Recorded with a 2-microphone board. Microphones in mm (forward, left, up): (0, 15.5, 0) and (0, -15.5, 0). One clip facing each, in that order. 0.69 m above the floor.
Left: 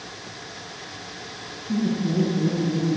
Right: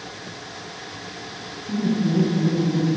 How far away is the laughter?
About 6 m.